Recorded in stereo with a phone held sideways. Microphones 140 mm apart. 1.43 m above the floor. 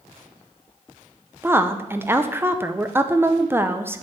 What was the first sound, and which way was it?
A woman speaking, 15° right (ahead or behind).